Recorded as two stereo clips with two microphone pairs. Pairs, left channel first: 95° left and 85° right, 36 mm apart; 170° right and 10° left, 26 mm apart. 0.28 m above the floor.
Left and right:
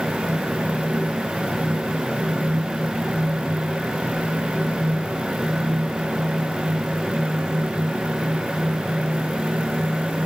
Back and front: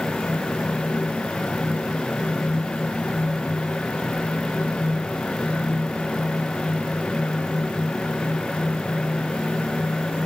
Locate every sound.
Only background noise.